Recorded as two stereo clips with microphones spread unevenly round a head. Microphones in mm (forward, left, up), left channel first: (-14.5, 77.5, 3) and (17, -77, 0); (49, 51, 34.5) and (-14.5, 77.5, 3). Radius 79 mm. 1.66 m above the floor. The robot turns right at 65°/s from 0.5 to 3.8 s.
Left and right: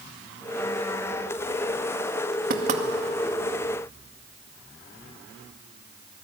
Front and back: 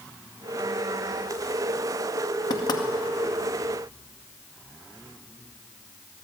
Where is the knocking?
45° right, 2 m; by 2.8 s 20° right, 2 m.